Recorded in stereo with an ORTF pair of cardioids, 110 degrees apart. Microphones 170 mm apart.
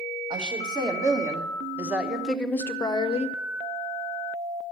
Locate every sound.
0.3 s a woman speaking: 25° right, 1.7 m; by 3.4 s 45° left, 0.6 m